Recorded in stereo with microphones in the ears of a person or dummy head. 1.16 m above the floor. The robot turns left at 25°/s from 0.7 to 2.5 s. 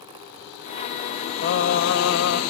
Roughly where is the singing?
Left.